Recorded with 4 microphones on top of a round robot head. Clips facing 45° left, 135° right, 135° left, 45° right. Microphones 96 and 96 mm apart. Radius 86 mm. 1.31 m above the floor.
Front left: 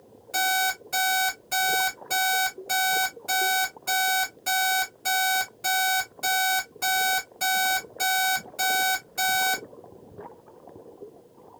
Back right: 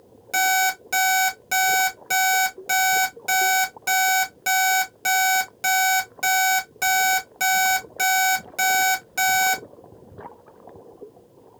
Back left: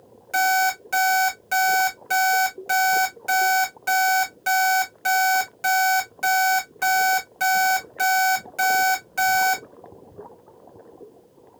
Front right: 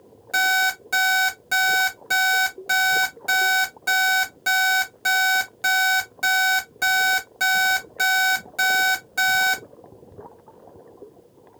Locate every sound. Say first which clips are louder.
0.3 s an alarm clock: back right 5 dB, back left 2 dB; 125° right, 1.6 m